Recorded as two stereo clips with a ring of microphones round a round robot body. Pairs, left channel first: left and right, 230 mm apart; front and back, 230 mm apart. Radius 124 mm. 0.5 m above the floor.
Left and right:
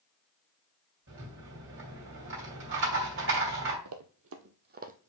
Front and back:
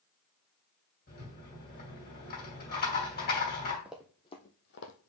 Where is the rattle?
55° right, 3 m.